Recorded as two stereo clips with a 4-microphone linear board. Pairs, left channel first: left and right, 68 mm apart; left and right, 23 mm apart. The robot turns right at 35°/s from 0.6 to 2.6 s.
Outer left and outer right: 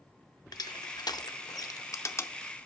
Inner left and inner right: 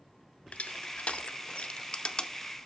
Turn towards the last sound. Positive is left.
turn(degrees=30)  # may be behind; listen again after turning